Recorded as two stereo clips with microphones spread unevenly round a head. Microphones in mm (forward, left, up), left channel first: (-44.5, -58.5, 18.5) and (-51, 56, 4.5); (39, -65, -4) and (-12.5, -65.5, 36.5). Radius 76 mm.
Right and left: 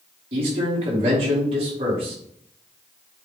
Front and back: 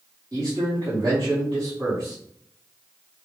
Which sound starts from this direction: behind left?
A man speaking, at 0.3 s.